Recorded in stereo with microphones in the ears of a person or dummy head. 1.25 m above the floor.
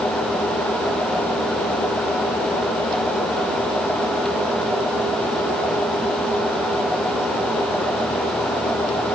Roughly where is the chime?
I don't hear a chime.